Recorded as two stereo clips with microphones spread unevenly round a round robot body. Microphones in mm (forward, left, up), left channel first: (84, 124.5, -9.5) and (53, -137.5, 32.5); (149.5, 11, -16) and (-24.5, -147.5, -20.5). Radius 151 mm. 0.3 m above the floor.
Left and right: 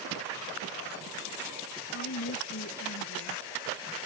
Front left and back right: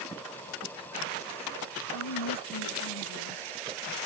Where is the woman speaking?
40° left.